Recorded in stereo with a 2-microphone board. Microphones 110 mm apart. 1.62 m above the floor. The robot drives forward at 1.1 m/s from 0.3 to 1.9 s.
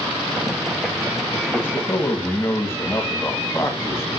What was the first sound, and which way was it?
A man speaking, 20° left (ahead or behind).